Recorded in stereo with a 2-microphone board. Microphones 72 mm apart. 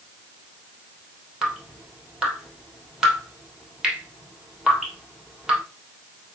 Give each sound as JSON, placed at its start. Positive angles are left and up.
{"t": 1.4, "sound": "dripping", "side_deg": -10, "distance_m": 2.5}